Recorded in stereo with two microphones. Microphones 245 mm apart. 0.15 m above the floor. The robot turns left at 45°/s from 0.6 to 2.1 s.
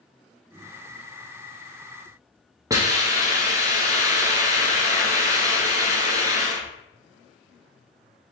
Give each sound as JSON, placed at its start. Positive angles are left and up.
{"t": 2.7, "sound": "a hiss", "side_deg": -15, "distance_m": 1.1}